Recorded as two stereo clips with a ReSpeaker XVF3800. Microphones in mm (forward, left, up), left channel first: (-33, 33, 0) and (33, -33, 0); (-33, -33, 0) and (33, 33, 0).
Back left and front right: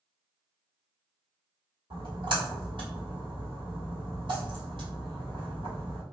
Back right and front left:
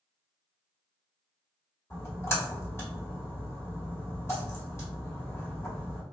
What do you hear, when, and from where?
1.9 s a splash: 75° right, 3 m